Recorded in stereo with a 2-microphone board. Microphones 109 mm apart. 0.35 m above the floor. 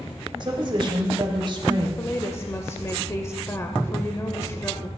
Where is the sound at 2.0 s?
25° left (ahead or behind), 0.9 m.